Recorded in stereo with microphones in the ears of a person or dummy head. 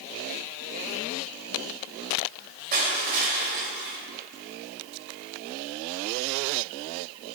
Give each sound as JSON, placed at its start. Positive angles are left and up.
{"t": 2.7, "sound": "crushing", "side_deg": -40, "distance_m": 1.8}